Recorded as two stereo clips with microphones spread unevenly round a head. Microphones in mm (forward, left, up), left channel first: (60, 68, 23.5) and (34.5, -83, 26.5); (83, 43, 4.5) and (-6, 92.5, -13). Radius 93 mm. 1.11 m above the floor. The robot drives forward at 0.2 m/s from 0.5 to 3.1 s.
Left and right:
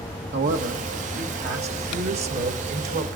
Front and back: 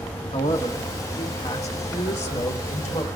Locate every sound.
0.3 s a man speaking: 100° right, 1.9 m; by 3.1 s 115° right, 2 m